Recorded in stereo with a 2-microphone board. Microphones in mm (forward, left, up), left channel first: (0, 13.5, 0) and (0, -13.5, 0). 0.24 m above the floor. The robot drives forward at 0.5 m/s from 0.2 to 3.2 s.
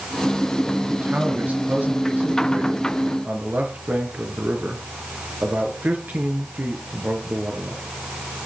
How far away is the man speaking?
About 5 m.